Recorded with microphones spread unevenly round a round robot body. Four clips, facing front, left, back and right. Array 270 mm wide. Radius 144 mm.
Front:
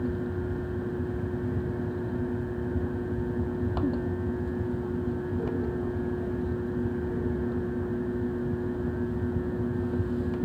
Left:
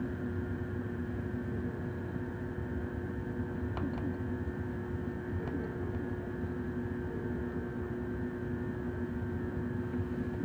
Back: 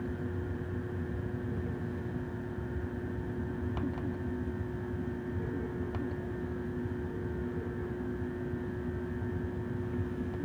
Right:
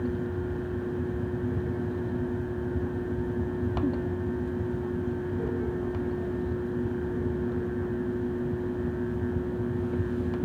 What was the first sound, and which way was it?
Only background noise.